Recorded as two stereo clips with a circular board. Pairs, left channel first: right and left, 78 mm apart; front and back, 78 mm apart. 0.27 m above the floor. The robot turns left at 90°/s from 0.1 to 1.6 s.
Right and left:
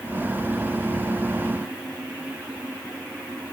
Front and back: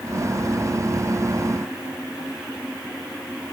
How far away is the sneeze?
No sneeze in this recording.